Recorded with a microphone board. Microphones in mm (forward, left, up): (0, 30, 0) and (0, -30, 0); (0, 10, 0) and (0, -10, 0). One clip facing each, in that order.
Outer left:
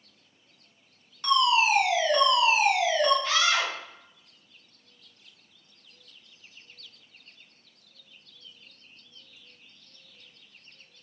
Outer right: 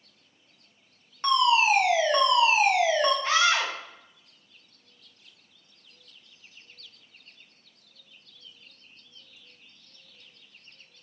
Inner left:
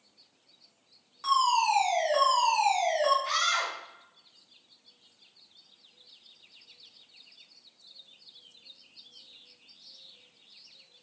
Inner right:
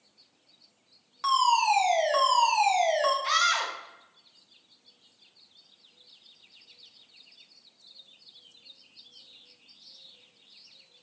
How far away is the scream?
About 0.9 m.